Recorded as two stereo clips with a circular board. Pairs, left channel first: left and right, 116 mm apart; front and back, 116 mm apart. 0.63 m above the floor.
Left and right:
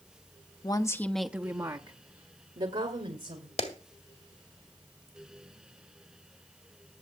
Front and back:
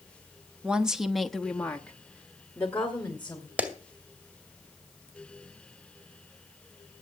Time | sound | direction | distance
0.6 | a woman speaking | 105° left | 0.9 m
3.6 | a clap | 105° left | 2 m